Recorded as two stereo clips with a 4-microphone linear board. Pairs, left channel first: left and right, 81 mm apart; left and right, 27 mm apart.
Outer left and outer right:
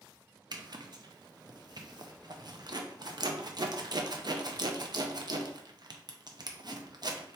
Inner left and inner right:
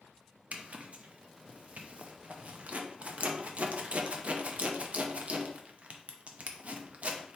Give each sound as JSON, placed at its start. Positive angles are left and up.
{"t": 0.5, "sound": "a zipper", "side_deg": -60, "distance_m": 0.6}